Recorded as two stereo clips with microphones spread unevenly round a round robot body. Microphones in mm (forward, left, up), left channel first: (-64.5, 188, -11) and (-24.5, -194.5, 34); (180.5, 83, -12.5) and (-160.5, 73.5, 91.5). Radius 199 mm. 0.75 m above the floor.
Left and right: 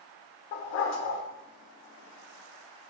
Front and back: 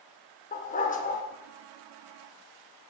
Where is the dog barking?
75° left, 0.9 m.